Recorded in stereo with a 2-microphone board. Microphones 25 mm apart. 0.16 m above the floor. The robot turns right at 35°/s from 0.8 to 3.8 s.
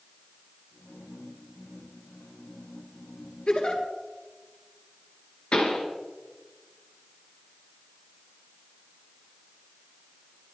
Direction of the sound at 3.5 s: 50° left (ahead or behind).